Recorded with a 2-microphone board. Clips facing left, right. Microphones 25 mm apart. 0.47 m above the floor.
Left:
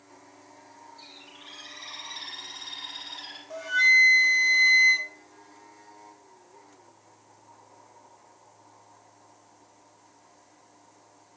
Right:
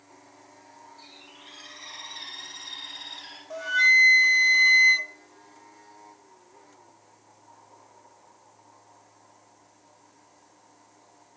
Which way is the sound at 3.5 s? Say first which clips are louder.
Right 1 dB; 5° right (ahead or behind).